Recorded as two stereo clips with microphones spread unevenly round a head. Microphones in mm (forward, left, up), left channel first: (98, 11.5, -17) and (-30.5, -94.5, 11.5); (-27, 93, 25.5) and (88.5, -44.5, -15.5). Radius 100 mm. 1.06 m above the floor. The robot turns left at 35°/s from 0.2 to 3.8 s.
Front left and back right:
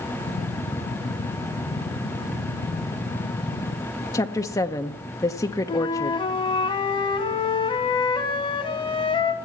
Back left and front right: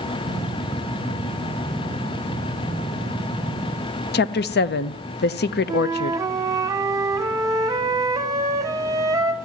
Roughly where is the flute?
Ahead.